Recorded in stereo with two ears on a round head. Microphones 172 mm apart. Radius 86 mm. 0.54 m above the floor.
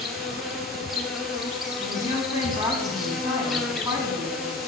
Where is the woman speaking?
15° right (ahead or behind), 4.5 m.